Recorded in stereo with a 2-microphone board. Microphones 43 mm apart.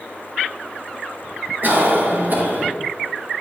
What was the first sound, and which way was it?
A cough, 50° right (ahead or behind).